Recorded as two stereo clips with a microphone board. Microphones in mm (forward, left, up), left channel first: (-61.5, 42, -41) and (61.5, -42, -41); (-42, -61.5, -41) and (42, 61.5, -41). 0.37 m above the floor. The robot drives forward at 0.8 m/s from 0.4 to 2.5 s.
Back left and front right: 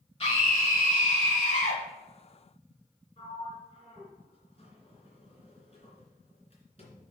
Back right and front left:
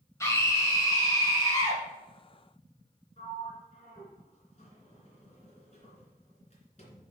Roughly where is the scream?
Behind.